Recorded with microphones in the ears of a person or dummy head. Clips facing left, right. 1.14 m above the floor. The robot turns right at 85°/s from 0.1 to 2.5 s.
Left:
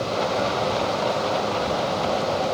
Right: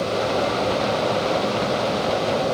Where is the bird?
No bird in this recording.